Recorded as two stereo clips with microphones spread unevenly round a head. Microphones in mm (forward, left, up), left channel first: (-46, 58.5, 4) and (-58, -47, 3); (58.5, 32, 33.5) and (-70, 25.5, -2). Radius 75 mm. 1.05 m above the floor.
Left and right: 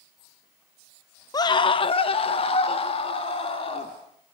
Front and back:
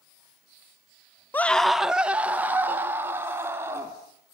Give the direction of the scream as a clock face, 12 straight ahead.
9 o'clock.